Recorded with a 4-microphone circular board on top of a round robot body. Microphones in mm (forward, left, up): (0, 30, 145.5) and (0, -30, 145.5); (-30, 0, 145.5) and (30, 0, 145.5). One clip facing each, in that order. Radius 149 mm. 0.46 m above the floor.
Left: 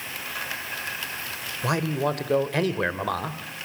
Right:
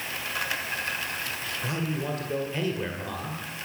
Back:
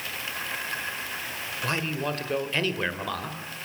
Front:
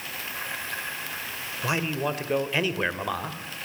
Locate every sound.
1.6 s a man speaking: 80° left, 2 m